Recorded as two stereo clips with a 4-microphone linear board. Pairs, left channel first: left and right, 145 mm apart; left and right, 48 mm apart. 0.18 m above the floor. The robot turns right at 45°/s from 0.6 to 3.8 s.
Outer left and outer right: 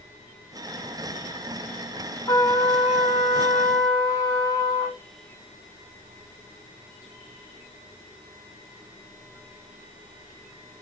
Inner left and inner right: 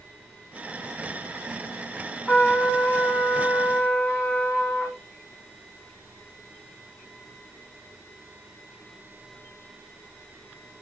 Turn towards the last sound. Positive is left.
turn(degrees=135)